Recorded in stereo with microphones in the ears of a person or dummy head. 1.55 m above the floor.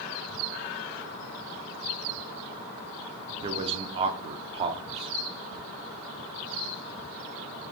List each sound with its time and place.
3.4 s a man speaking: 40° right (ahead or behind), 0.5 m